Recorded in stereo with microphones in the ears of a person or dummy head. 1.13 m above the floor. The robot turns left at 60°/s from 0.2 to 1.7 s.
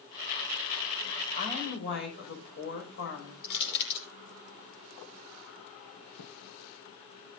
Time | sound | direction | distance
1.3 | a woman speaking | 35° left (ahead or behind) | 5.5 m
3.4 | crushing | 60° left (ahead or behind) | 5.5 m
6.2 | a thud | 75° left (ahead or behind) | 3.5 m